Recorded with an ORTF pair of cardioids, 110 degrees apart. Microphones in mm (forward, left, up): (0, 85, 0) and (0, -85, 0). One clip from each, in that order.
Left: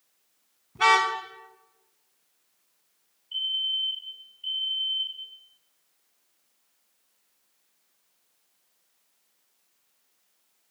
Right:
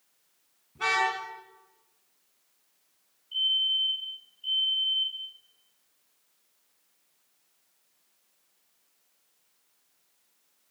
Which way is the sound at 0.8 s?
55° left.